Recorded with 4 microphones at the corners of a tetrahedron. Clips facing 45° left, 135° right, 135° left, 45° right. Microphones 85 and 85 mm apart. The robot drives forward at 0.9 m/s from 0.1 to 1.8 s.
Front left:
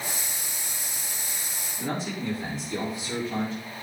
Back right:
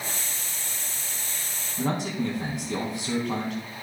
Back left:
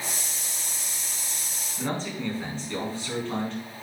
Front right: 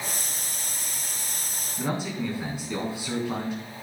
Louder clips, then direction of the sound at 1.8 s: Back right 4 dB, front right 1 dB; 125° right.